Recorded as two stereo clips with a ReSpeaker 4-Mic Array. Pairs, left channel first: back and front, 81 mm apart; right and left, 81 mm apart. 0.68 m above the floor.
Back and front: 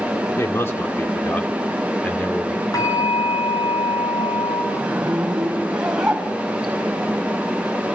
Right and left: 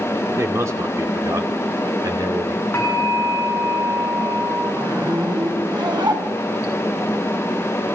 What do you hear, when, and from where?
0.4 s a man speaking: 135° left, 2 m; by 2.6 s 100° left, 2.5 m
2.7 s a bell: 150° right, 8.5 m
4.7 s a zipper: 80° left, 4.5 m